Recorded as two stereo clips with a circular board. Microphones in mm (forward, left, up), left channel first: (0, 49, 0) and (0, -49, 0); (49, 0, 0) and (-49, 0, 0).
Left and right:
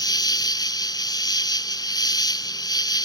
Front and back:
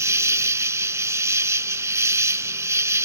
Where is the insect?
125° left.